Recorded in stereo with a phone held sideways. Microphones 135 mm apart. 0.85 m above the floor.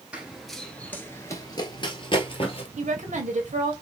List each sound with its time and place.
0.1 s running footsteps: 10° right (ahead or behind), 0.9 m; by 2.7 s 45° left (ahead or behind), 1.3 m
2.8 s a woman speaking: 80° right, 1.4 m